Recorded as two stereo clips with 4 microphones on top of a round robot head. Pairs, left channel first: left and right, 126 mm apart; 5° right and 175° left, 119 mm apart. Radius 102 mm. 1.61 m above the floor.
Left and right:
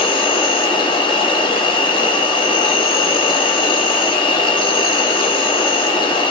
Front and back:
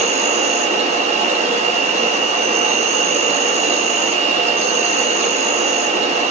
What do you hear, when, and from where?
0.0 s an insect: 145° left, 1.1 m